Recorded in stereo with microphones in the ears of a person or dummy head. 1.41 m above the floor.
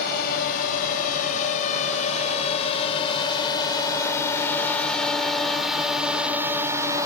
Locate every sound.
0.0 s a drone: 50° left (ahead or behind); by 7.1 s 20° right (ahead or behind)